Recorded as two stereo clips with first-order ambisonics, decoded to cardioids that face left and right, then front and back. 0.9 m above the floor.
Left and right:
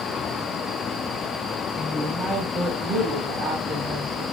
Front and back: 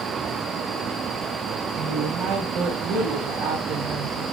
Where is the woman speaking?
175° right, 0.5 m; by 4.2 s 150° right, 1.9 m.